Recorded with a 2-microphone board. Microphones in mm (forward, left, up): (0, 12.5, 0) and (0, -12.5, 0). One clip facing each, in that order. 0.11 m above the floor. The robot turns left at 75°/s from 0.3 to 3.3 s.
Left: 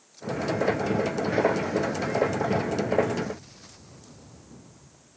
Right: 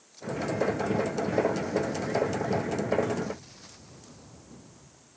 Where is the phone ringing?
No phone ringing in this recording.